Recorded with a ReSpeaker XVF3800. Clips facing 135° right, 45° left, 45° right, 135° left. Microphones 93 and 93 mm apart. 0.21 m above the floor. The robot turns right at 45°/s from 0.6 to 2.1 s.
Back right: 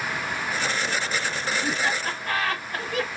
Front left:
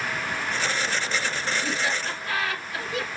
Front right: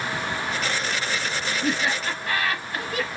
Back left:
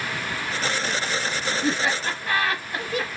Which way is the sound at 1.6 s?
175° right.